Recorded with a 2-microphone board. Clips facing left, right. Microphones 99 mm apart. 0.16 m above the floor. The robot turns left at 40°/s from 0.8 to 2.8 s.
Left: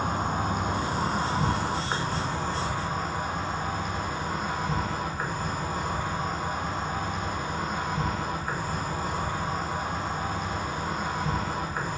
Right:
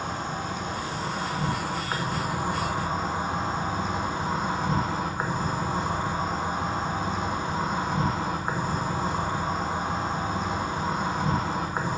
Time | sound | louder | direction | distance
0.0 | an insect | left 3 dB | 55° left | 1.2 m